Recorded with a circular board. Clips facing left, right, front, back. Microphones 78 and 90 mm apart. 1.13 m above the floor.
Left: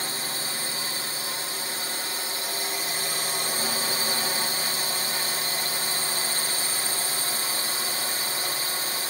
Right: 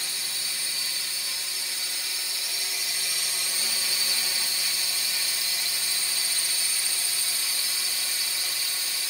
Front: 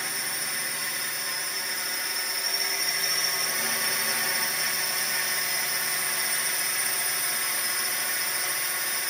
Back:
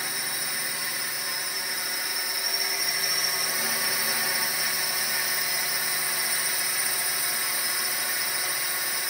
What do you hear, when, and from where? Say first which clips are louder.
0.0 s a drone: left 6 dB, even; 90° left